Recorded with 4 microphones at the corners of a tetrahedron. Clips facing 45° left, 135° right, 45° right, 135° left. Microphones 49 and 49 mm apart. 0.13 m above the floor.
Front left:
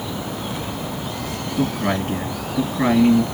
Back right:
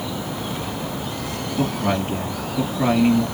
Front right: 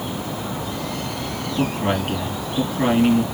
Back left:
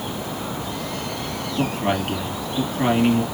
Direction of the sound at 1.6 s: 40° left.